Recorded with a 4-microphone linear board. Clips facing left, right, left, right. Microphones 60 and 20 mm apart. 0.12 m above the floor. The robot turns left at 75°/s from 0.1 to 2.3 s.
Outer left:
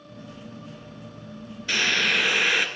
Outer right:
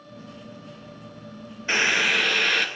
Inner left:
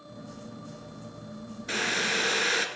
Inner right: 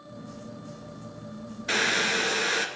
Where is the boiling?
140° right, 1.2 m; by 2.7 s 170° left, 1.2 m.